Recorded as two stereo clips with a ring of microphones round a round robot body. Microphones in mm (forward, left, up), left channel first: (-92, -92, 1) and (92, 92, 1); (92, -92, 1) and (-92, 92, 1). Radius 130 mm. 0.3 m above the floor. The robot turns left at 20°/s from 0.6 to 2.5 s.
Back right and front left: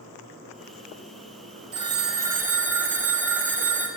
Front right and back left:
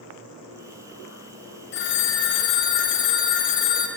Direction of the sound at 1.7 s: 20° right.